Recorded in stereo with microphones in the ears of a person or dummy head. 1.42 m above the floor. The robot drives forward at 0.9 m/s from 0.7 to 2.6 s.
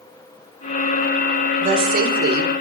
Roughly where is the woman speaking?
Right.